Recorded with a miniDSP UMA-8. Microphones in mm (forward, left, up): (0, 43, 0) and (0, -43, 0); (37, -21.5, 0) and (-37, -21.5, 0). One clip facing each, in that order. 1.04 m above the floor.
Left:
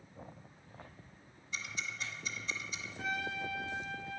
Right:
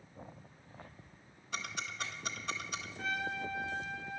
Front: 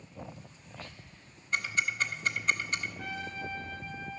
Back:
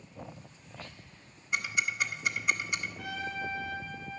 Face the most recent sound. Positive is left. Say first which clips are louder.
# even, back 2 dB
turn(degrees=180)